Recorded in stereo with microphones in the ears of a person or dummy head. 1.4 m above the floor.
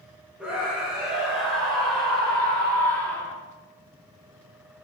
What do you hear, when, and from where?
0.4 s a scream: 5° right (ahead or behind), 6.5 m; by 3.4 s 10° left (ahead or behind), 5 m